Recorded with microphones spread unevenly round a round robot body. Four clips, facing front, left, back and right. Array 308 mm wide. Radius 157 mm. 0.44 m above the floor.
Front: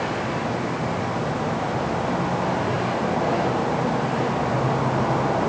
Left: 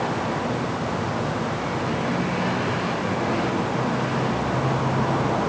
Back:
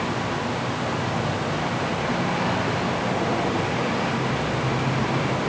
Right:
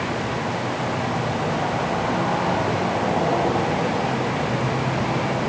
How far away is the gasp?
No gasp in this recording.